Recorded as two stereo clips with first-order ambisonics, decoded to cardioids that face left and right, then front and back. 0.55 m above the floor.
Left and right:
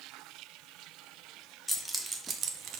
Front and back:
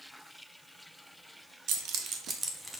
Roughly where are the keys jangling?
Behind.